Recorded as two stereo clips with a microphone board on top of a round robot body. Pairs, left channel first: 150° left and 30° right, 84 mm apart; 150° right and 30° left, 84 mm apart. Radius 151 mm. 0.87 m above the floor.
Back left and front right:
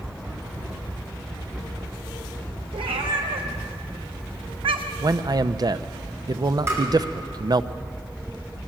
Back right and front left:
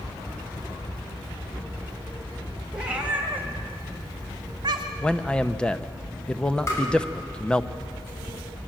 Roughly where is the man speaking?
Right.